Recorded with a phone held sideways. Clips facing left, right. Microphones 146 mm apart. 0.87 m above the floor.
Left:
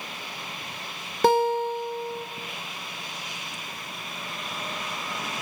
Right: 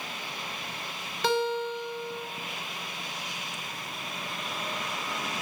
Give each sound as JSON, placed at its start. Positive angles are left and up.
{"t": 1.2, "sound": "a guitar", "side_deg": 50, "distance_m": 1.1}